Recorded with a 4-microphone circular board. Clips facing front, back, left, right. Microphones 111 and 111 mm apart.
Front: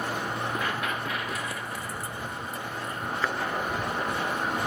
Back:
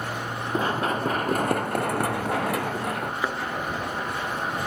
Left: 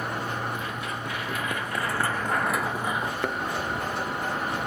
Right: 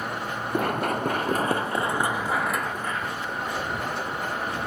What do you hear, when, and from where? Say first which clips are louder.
0.5 s running footsteps: back 5 dB, right 8 dB; 120° right; by 3.1 s 160° left
3.2 s a thud: even, left 4 dB; 105° left